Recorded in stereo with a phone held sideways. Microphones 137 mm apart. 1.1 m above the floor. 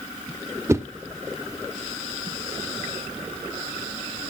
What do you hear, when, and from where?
0.7 s a whoosh: 20° right (ahead or behind), 0.9 m